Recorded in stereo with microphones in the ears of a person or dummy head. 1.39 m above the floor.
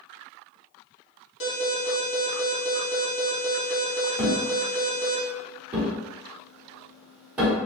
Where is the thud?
5° right (ahead or behind), 1.4 m.